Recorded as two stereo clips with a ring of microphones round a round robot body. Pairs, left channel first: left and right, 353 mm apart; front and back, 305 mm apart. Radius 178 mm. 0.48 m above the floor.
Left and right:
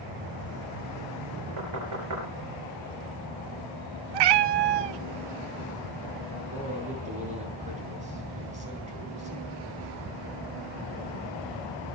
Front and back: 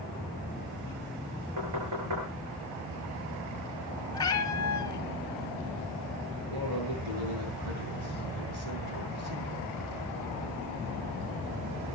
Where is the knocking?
135° right, 6 m.